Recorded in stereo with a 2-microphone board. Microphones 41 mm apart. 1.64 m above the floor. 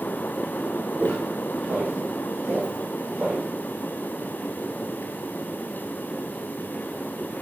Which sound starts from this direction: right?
Footsteps, at 1.0 s.